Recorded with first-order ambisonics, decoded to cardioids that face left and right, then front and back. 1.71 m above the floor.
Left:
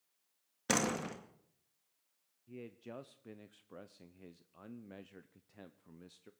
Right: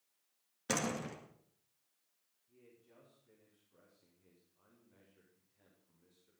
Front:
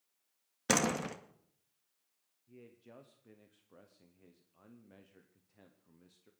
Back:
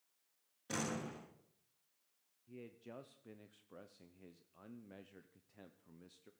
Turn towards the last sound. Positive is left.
turn(degrees=100)